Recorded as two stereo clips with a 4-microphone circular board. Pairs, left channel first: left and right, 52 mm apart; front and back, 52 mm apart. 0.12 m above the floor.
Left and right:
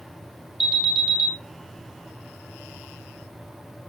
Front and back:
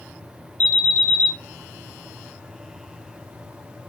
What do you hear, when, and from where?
0.6 s an alarm: 10° right, 1.0 m